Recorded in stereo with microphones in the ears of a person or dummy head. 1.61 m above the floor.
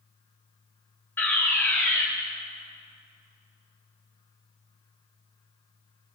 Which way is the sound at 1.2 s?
5° left (ahead or behind).